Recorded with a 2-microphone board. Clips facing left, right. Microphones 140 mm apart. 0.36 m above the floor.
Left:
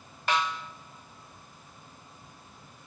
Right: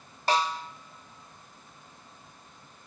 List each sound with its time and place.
0.3 s a snare drum: 35° right (ahead or behind), 0.6 m